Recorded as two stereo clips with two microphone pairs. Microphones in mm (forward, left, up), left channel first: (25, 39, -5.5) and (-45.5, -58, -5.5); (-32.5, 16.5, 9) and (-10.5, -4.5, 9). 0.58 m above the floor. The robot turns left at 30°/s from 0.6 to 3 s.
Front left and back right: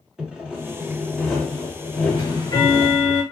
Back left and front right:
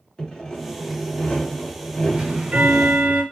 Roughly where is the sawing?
Behind.